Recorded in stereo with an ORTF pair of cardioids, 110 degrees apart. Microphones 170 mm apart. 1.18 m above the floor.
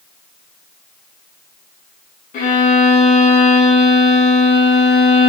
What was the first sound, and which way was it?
A violin, 50° left.